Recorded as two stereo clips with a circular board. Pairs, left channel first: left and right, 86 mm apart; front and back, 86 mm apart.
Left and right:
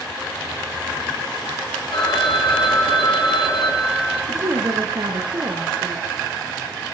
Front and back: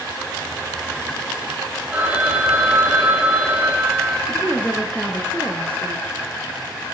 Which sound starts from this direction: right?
A woman speaking, at 4.3 s.